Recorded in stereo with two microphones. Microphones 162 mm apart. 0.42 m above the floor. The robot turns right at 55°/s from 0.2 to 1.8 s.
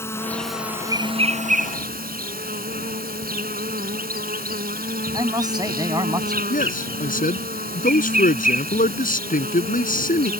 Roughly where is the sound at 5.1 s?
Right.